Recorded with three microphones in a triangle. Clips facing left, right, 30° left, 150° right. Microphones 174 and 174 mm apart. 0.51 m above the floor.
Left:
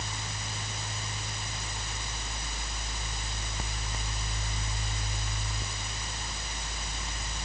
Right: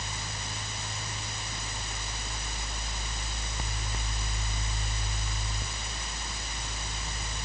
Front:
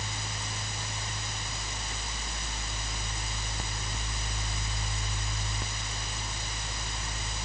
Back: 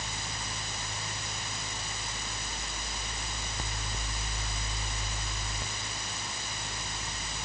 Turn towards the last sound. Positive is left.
No sound to turn to.